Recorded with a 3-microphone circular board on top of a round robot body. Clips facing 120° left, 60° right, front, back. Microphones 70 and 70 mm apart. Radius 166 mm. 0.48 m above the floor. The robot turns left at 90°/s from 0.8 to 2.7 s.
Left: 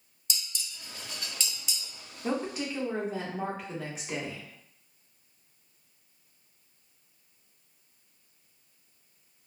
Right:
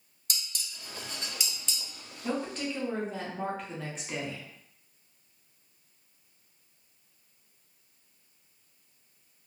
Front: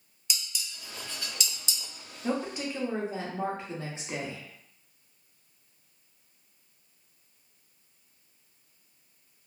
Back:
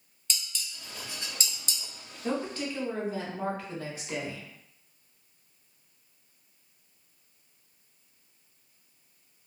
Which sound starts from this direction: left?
A woman speaking, at 2.2 s.